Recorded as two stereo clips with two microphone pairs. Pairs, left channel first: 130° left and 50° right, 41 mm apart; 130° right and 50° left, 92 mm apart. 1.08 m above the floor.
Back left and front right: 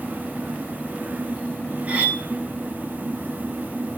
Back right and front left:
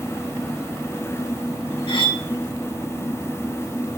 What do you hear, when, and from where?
1.9 s cutlery clinking: 105° right, 1.2 m